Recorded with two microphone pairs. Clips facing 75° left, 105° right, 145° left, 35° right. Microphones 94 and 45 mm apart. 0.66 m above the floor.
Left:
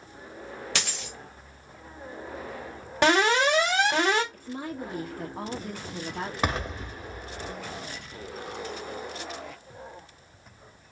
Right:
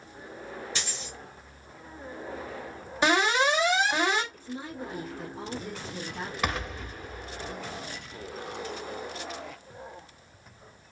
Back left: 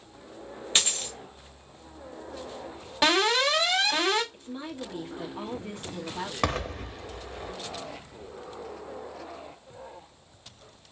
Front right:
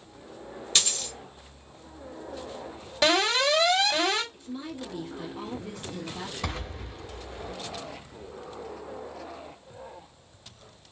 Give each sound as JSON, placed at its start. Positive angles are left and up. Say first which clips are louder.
{"t": 0.8, "sound": "a dropped coin", "louder": "left 3 dB, back left 1 dB", "azimuth_deg": 80, "distance_m": 0.9}
{"t": 3.0, "sound": "an alarm", "louder": "left 2 dB, even", "azimuth_deg": 70, "distance_m": 2.5}
{"t": 4.3, "sound": "a woman speaking", "louder": "left 3 dB, even", "azimuth_deg": 80, "distance_m": 1.1}
{"t": 6.4, "sound": "an explosion", "louder": "left 2 dB, back left 6 dB", "azimuth_deg": 135, "distance_m": 1.5}